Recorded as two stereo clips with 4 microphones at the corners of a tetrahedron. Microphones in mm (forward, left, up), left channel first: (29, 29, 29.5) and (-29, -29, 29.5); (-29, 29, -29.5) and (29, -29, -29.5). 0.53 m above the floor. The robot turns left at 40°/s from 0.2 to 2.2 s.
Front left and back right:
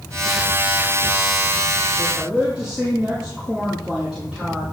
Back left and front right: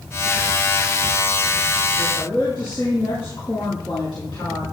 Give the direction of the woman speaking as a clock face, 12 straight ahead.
7 o'clock.